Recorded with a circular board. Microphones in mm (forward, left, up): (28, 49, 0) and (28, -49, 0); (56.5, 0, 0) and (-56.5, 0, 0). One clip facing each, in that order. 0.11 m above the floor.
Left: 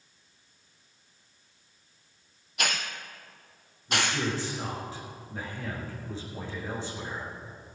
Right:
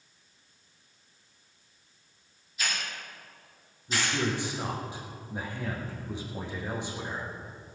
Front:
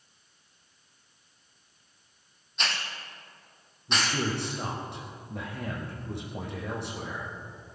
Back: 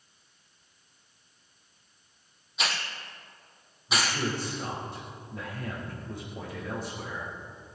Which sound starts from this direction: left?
A hiss, at 2.6 s.